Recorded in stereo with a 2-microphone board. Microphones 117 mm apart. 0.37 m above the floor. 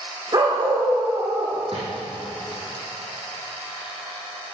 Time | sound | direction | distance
0.3 | a dog barking | 35° right (ahead or behind) | 8.5 m
1.7 | a drawer | 50° right (ahead or behind) | 7 m